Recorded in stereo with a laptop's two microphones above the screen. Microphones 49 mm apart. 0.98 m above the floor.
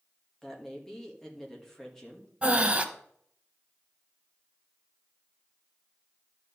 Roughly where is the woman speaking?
Centre.